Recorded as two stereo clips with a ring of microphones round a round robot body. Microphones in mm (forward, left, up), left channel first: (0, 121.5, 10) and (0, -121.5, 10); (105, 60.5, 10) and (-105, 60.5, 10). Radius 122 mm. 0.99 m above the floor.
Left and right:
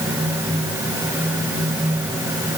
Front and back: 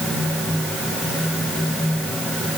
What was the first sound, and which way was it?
Only background noise.